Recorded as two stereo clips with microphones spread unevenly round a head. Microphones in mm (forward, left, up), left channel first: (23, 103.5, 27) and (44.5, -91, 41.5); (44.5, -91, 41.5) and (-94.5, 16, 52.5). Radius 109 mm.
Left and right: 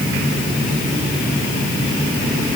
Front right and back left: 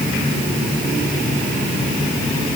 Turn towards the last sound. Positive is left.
No sound to turn to.